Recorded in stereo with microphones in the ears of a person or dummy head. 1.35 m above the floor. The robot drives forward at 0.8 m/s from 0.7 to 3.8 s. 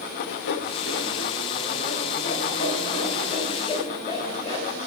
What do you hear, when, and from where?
0.2 s sawing: 65° left (ahead or behind), 1.6 m; by 4.8 s 25° left (ahead or behind), 3 m